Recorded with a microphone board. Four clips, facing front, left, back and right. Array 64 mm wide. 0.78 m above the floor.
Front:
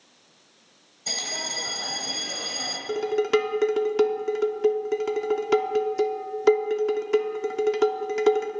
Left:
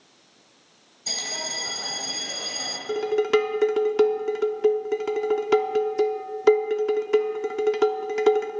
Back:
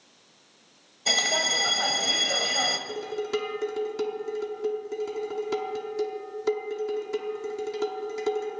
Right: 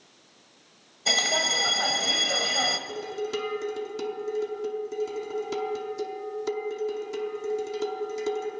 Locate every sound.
1.1 s a bell: 135° right, 1.3 m
2.9 s dishes clattering: 55° left, 1.0 m